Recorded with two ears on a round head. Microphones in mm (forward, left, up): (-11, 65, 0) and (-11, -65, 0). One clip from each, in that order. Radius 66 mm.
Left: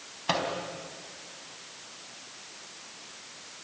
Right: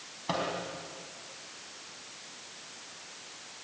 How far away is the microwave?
About 4 m.